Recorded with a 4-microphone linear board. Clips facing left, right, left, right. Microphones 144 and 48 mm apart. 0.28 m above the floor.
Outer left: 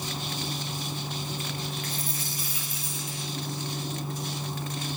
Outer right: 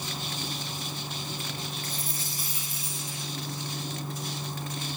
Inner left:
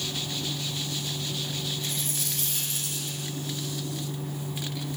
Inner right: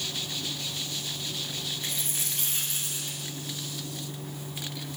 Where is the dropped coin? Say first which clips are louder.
Outer left 2 dB, inner left 2 dB; 35° right (ahead or behind), 9.5 m.